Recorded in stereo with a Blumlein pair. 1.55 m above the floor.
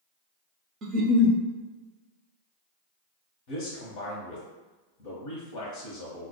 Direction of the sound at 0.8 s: 30° right.